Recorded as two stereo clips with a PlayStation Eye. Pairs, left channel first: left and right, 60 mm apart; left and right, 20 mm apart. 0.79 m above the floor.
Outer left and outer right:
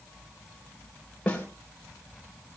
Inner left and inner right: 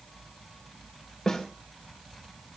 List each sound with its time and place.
1.3 s a snare drum: 20° left (ahead or behind), 3 m